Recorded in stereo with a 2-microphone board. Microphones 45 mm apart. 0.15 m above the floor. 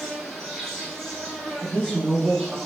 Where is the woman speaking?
20° right (ahead or behind), 1.1 m.